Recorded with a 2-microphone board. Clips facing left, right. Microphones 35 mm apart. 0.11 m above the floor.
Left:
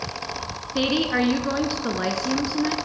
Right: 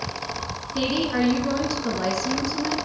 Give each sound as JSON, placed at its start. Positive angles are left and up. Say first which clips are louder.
{"t": 0.8, "sound": "a woman speaking", "louder": "left 2 dB", "side_deg": 25, "distance_m": 1.1}